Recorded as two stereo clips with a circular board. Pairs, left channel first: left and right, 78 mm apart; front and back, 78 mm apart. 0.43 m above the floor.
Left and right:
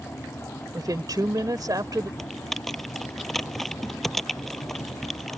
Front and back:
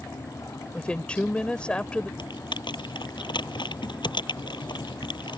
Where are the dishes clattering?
No dishes clattering in this recording.